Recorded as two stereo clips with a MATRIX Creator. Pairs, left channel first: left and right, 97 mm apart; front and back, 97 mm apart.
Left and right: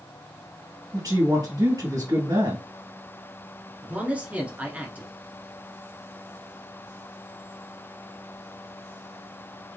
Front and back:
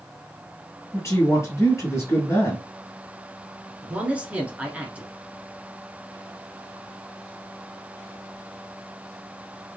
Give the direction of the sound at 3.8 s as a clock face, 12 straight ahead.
5 o'clock.